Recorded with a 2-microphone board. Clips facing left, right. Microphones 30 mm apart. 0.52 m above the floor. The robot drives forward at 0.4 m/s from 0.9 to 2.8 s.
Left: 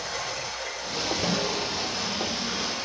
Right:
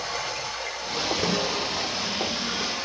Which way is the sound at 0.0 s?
20° right (ahead or behind).